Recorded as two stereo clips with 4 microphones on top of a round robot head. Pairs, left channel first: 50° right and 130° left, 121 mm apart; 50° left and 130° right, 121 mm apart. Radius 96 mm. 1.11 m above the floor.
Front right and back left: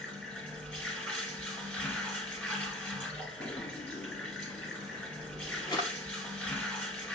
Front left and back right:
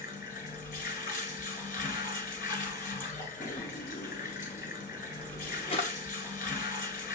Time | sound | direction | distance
0.0 | running water | 30° left | 1.6 m
3.4 | a drawer | 5° left | 0.6 m